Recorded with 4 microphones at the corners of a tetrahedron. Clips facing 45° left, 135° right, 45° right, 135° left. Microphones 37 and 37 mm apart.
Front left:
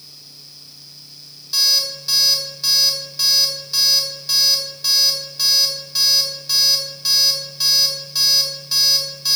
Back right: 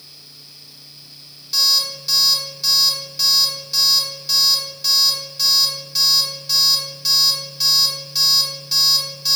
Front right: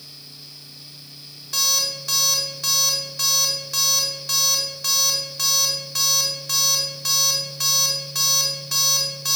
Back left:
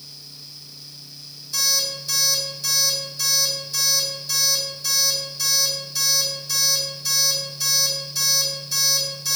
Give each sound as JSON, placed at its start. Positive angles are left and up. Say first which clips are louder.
{"t": 1.5, "sound": "an alarm clock", "louder": "even, front right 1 dB", "azimuth_deg": -40, "distance_m": 3.5}